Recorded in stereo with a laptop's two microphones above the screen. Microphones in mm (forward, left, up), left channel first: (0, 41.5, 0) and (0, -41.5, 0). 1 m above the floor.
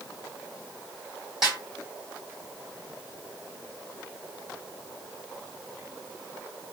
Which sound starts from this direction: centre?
A snare drum, at 1.4 s.